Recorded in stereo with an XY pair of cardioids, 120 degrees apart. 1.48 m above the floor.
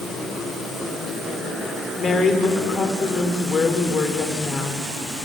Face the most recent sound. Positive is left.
turn(degrees=30)